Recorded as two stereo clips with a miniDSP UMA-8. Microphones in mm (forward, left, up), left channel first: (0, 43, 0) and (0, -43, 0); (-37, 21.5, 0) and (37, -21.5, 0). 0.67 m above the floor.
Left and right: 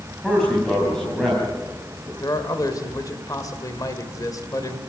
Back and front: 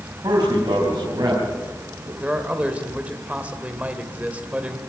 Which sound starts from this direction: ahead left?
A man speaking, at 2.2 s.